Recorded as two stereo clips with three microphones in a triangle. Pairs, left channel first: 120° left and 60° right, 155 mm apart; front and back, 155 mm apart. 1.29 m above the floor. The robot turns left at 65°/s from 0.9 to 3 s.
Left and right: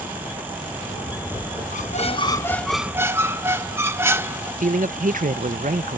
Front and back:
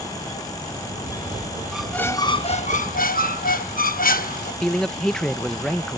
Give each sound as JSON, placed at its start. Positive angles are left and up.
{"t": 1.7, "sound": "a squeak", "azimuth_deg": 95}
{"t": 4.6, "sound": "a man speaking", "azimuth_deg": -85}